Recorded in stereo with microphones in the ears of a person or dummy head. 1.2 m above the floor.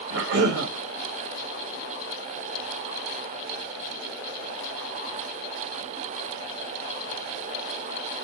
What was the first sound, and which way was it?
A cough, 75° right (ahead or behind).